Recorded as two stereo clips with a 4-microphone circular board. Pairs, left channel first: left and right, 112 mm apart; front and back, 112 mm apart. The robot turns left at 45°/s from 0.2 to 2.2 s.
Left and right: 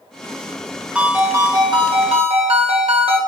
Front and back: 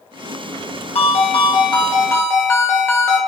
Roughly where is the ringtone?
Ahead.